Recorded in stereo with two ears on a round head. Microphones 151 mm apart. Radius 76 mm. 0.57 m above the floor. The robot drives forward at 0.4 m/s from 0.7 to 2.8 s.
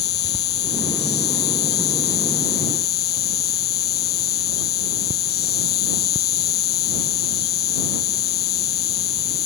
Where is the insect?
70° left (ahead or behind); by 9.5 s 65° left (ahead or behind).